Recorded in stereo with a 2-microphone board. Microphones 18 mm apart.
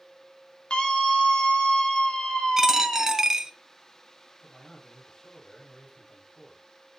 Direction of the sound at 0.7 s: 60° left (ahead or behind).